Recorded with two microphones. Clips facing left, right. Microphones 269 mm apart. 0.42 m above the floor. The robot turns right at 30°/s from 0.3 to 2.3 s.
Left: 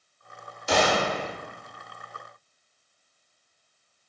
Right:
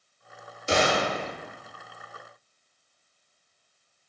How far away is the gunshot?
About 1.3 m.